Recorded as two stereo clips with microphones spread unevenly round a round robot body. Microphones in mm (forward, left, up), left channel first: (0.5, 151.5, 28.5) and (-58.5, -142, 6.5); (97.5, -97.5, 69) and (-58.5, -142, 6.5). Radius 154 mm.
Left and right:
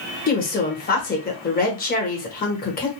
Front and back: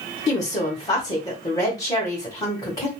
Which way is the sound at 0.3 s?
105° left.